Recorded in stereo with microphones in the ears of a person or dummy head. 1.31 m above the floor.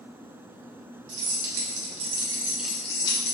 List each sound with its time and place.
1.1 s keys jangling: 60° right (ahead or behind), 1.0 m; by 3.3 s 35° left (ahead or behind), 0.7 m